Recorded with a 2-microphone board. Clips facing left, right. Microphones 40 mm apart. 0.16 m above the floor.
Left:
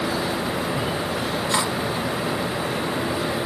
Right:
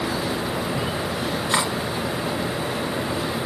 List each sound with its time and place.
1.5 s cutlery clinking: 25° right (ahead or behind), 1.6 m